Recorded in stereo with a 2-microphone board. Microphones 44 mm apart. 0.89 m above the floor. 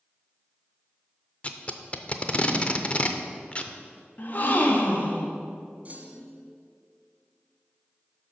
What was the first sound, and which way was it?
Tape being pulled, 30° left (ahead or behind).